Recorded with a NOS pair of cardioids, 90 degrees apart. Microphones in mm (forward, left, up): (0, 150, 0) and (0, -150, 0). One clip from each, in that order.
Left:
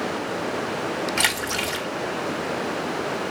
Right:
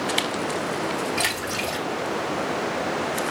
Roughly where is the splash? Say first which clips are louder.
Left 2 dB; ahead left.